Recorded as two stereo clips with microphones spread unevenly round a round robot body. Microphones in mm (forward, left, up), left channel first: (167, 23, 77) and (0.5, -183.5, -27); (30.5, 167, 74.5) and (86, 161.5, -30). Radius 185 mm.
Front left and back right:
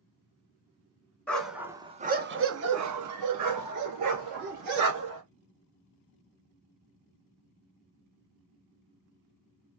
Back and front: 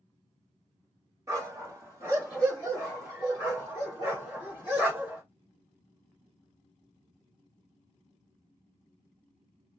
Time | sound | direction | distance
1.3 | a dog barking | 35° right | 1.1 m